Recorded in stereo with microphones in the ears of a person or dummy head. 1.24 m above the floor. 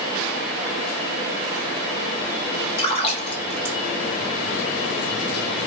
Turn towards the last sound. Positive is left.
turn(degrees=35)  # may be behind; listen again after turning